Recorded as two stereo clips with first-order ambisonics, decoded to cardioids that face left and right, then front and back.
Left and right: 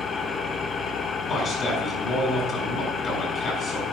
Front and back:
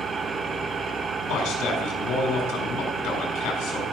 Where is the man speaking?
30° left, 4 m.